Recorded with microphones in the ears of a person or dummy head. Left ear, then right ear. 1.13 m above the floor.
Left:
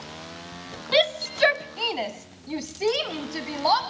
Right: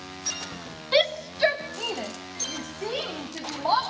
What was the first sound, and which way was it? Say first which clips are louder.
A shout: left 1 dB; 5° left (ahead or behind).